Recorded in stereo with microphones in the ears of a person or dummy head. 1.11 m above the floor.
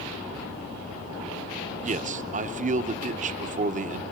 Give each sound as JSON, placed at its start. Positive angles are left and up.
{"t": 1.8, "sound": "a man speaking", "side_deg": -35, "distance_m": 0.6}